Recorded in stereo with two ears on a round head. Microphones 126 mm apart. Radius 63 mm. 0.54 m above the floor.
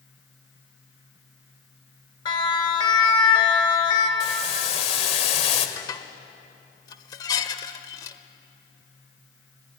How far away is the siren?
About 3 m.